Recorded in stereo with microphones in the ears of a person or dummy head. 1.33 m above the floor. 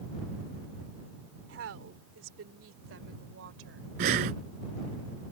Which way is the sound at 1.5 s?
75° right (ahead or behind).